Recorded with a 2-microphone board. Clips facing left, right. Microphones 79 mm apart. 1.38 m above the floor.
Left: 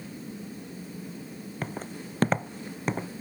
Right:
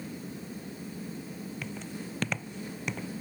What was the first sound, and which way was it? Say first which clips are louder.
Footsteps: left 3 dB; 45° left (ahead or behind).